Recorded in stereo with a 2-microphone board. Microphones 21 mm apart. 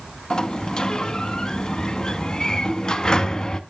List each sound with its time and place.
0.3 s a sliding door: 35° left (ahead or behind), 0.6 m